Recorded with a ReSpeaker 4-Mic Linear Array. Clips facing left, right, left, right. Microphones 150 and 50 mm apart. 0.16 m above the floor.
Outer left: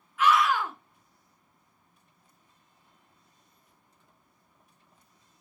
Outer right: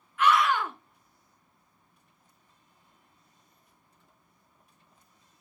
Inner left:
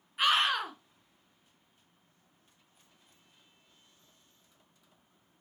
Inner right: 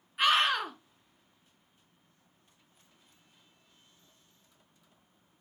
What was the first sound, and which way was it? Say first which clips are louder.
A scream: even, inner right 1 dB; centre (ahead or behind).